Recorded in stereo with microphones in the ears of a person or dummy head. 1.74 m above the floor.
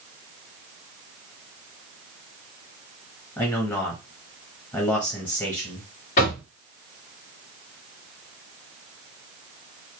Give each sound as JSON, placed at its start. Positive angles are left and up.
{"t": 3.4, "sound": "a man speaking", "side_deg": 15, "distance_m": 0.7}
{"t": 6.2, "sound": "knocking", "side_deg": 45, "distance_m": 1.2}